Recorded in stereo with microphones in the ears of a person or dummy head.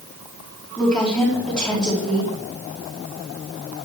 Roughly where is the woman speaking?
Centre.